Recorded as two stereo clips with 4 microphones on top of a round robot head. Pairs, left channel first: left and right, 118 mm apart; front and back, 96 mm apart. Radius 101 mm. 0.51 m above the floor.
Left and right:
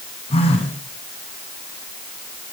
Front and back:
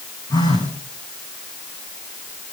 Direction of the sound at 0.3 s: 50° left.